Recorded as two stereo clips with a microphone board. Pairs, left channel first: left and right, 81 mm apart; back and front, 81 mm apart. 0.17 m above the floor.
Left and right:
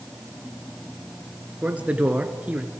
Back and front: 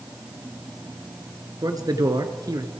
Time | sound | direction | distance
1.6 | a man speaking | 20° right | 2.5 m